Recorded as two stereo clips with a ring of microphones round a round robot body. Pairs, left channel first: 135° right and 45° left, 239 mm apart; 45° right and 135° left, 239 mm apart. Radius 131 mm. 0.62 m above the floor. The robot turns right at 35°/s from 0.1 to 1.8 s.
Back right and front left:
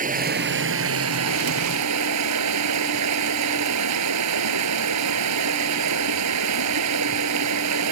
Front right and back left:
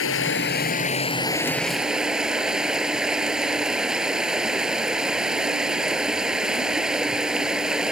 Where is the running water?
10° right; by 7.9 s 50° left.